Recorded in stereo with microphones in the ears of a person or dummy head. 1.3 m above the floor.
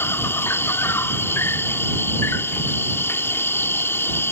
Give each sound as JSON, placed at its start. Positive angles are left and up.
{"t": 0.0, "sound": "an insect", "side_deg": 10}